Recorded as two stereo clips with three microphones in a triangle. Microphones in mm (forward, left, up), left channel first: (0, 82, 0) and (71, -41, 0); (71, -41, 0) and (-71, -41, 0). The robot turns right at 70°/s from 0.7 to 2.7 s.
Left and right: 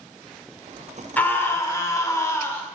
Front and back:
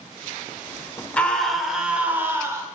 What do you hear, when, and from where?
1.2 s a scream: 60° left, 1.2 m; by 2.6 s 165° left, 1.2 m